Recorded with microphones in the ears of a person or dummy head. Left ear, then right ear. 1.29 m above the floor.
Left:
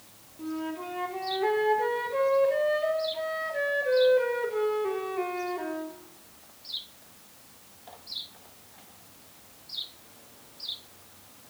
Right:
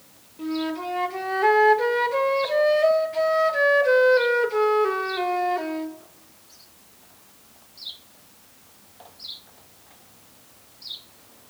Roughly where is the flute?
Right.